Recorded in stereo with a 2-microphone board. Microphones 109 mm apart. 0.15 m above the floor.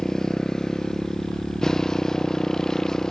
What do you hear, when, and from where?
0.0 s a motorcycle: 5° left (ahead or behind)